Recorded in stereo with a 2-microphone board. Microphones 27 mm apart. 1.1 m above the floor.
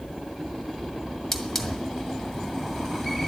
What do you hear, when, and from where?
1.3 s a hiss: 15° left (ahead or behind), 1.8 m